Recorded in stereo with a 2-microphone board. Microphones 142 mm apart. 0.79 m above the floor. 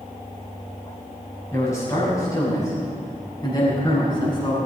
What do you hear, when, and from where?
1.5 s a man speaking: 20° left (ahead or behind), 6 m; by 4.6 s 30° left (ahead or behind), 7 m